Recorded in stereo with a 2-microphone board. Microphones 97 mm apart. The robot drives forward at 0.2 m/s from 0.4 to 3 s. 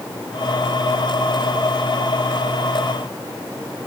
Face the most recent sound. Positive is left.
No sound to turn to.